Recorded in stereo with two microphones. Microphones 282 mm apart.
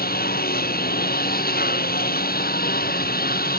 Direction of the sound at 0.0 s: 30° left (ahead or behind).